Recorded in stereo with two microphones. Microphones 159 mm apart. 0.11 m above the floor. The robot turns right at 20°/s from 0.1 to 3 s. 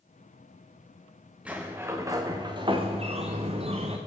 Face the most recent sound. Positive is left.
turn(degrees=-140)